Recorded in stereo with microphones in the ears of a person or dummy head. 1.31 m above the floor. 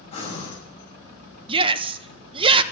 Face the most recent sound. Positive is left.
turn(degrees=-30)  # may be behind; listen again after turning